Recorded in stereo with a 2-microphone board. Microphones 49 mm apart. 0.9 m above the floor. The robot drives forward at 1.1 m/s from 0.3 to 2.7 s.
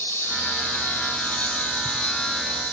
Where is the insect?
65° left (ahead or behind), 2.5 m; by 2.7 s 30° left (ahead or behind), 4.5 m.